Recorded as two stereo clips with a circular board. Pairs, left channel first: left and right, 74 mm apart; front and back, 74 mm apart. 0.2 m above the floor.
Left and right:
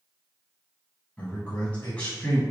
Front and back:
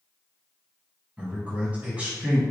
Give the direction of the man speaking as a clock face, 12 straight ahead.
7 o'clock.